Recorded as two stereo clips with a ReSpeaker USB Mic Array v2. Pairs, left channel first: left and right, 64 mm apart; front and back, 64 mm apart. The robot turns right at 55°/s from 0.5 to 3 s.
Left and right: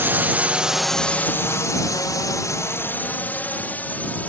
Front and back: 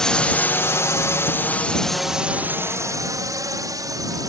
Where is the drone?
75° right; by 4.3 s 155° left.